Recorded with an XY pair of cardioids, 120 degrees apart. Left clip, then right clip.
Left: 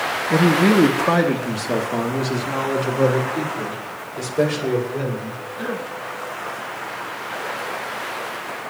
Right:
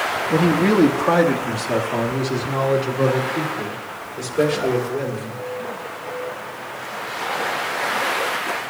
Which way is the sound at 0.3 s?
10° left.